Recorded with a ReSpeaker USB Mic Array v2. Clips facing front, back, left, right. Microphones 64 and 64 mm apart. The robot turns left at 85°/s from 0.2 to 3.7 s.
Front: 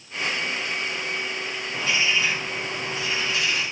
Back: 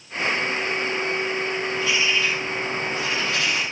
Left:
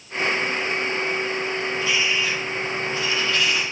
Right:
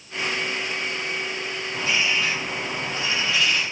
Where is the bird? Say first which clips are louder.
Front 1 dB, right 2 dB; 35° right, 4.5 m; by 3.6 s 165° left, 4.5 m.